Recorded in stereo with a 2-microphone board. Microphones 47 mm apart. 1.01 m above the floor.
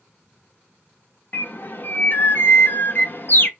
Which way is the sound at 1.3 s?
45° left (ahead or behind).